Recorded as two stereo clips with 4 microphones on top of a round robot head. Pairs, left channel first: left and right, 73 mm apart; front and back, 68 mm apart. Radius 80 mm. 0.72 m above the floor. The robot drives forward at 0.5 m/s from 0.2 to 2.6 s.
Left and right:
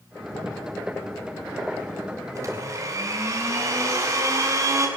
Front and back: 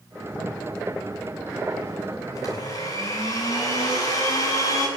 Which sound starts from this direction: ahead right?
A blender, at 2.4 s.